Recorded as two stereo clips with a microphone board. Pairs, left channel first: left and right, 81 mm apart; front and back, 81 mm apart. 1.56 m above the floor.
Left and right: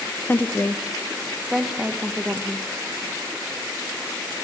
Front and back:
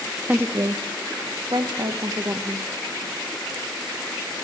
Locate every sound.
0.3 s a woman speaking: 130° left, 0.5 m; by 2.7 s 160° right, 1.6 m